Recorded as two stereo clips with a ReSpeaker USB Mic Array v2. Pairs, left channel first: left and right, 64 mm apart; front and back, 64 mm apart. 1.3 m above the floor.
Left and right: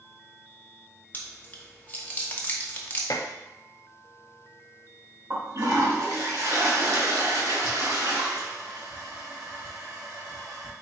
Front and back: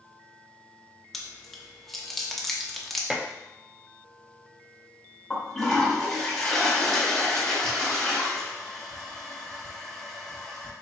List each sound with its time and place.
1.1 s chewing: 85° left, 0.8 m
3.1 s dishes clattering: 100° left, 0.5 m
5.3 s a toilet flushing: 80° right, 2.0 m